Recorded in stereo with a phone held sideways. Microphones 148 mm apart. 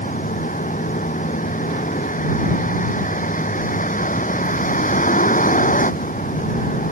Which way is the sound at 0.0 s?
65° left (ahead or behind).